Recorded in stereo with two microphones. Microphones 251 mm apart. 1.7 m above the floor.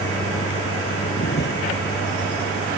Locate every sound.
0.0 s a vehicle: 40° left (ahead or behind); by 2.8 s 45° left (ahead or behind)